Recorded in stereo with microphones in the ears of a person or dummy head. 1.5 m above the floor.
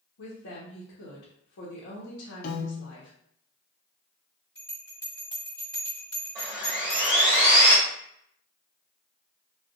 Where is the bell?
15° left (ahead or behind), 1.8 m.